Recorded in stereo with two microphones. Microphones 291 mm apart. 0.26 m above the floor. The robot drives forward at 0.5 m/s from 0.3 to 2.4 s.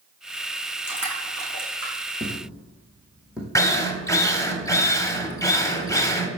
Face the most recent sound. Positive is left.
turn(degrees=10)  # may be behind; listen again after turning